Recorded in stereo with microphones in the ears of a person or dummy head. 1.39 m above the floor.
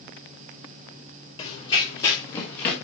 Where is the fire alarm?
No fire alarm in this recording.